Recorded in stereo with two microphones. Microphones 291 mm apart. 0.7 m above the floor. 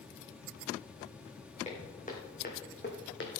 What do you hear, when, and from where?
1.6 s footsteps: 20° left (ahead or behind), 3 m; by 3.3 s 40° left (ahead or behind), 2 m